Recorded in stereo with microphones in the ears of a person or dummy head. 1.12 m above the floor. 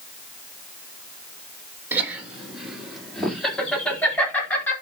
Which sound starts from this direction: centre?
Laughter, at 1.9 s.